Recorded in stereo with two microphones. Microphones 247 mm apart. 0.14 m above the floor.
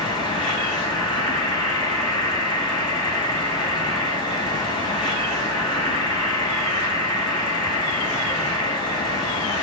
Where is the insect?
15° left (ahead or behind), 6 m.